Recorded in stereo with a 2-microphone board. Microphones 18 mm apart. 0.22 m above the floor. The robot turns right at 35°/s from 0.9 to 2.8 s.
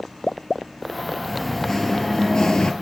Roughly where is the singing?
Ahead.